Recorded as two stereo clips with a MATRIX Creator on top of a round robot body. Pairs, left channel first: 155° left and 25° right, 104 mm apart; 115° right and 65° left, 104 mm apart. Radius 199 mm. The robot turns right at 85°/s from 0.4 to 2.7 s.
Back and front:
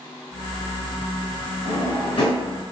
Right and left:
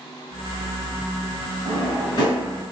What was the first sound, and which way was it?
A drawer, 155° left.